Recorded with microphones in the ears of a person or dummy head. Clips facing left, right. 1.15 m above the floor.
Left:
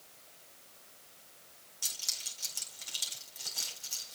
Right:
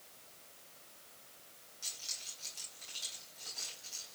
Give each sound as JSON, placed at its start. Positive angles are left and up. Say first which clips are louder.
{"t": 1.8, "sound": "keys jangling", "louder": "left 4 dB", "side_deg": 70, "distance_m": 3.5}